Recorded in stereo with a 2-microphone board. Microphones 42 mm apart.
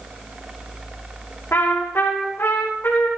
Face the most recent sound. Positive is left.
turn(degrees=85)